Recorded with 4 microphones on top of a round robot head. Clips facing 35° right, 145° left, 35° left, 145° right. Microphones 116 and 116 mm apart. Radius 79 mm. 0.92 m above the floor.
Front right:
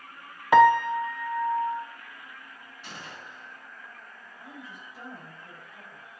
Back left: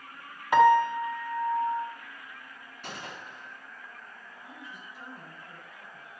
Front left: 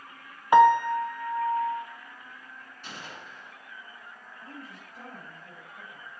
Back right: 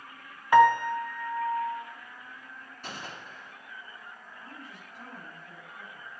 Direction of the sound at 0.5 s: 40° right.